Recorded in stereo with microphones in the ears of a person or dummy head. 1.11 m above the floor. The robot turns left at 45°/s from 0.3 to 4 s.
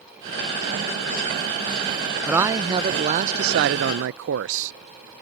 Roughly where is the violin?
I don't hear a violin.